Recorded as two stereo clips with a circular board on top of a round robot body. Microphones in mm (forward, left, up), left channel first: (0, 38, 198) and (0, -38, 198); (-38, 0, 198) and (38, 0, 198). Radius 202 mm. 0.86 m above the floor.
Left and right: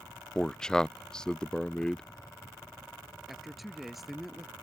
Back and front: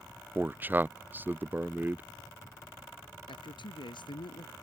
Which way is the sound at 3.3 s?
Straight behind.